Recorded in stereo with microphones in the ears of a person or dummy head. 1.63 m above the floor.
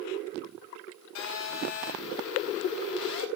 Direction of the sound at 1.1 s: 55° left (ahead or behind).